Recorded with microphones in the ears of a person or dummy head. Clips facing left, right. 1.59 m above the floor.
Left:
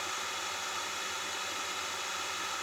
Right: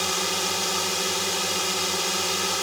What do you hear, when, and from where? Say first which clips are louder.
0.0 s a drone: right 14 dB; 85° right